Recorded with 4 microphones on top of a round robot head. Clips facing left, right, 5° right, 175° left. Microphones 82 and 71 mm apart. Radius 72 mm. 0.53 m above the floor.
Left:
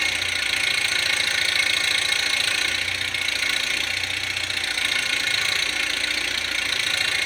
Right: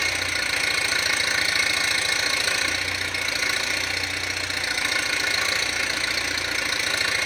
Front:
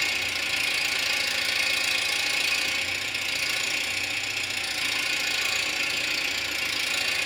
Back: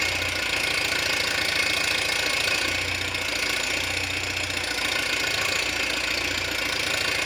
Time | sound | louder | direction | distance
0.0 | an engine running | right 1 dB, back 3 dB | 160° right | 2 m